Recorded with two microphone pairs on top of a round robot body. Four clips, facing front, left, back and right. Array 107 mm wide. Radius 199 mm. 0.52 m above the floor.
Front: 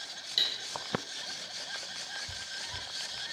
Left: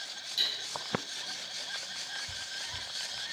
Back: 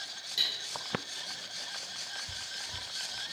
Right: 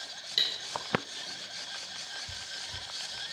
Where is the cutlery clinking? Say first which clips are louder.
Right 2 dB, front 1 dB; 75° right, 1.3 m.